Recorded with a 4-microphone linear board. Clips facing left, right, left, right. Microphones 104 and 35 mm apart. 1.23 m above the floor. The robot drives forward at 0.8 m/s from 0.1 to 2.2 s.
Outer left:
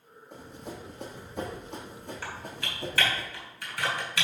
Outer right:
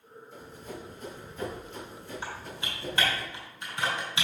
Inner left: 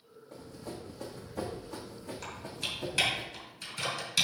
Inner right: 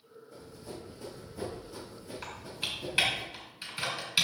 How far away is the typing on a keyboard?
About 4.5 m.